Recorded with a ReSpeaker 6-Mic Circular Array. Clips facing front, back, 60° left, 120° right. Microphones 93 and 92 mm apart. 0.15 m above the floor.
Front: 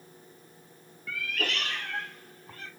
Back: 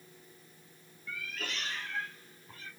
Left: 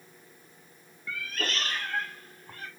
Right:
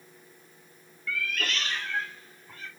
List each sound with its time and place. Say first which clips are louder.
1.1 s a cat meowing: front 8 dB, right 2 dB; 5° right, 0.7 m; by 2.7 s 30° left, 1.5 m